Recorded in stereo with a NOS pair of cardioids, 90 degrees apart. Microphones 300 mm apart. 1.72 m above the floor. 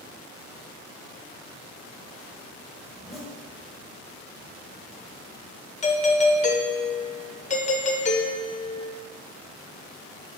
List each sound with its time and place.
2.9 s a zipper: straight ahead, 2.5 m
5.8 s a doorbell: 25° left, 1.1 m